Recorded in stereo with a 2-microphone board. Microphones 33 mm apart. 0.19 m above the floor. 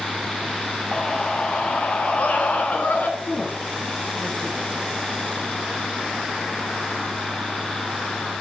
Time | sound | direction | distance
0.9 | a scream | 20° left (ahead or behind) | 1.0 m
3.2 | a woman speaking | 50° left (ahead or behind) | 3 m